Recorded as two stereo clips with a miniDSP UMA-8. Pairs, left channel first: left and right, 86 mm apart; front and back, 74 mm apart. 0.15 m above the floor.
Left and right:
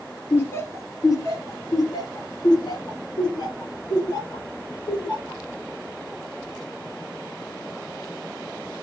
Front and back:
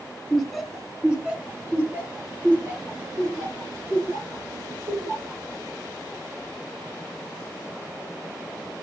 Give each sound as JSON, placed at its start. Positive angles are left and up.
{"t": 0.3, "sound": "laughter", "azimuth_deg": 80, "distance_m": 1.4}